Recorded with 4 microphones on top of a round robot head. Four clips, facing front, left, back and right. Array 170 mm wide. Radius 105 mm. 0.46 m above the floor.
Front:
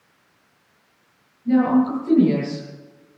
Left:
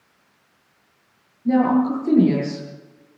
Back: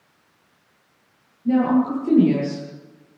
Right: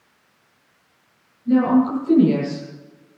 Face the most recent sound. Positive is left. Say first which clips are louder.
# right 1 dB, front 1 dB
turn(degrees=120)